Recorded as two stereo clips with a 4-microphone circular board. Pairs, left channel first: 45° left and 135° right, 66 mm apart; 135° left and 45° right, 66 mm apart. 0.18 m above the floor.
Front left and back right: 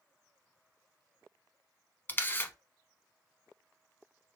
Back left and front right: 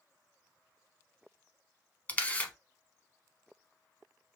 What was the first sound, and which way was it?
A camera shutter, 85° left.